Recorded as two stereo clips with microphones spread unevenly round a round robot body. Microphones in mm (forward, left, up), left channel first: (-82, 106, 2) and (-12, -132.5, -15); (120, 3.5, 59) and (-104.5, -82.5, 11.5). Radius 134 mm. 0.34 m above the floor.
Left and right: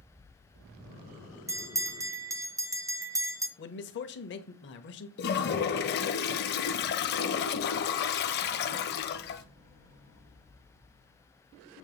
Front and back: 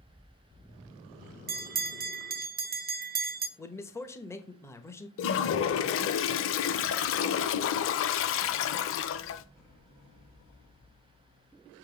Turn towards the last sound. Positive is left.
turn(degrees=60)